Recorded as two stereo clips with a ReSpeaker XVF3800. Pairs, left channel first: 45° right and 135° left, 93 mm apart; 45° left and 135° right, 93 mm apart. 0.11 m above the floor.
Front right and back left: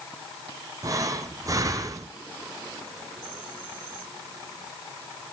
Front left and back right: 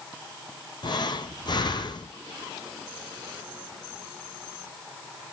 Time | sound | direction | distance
0.8 | breathing | 85° left | 0.9 m